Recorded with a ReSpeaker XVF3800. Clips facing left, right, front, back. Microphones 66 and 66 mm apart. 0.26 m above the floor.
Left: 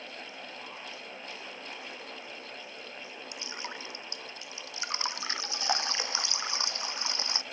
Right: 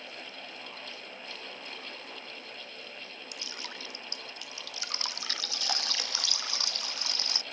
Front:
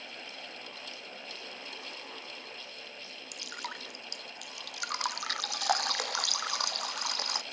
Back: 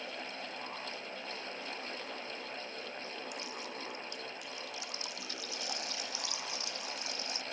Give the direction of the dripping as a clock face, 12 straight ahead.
11 o'clock.